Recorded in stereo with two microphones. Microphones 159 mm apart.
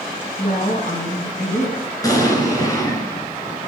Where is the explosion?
20° left (ahead or behind), 2.5 m.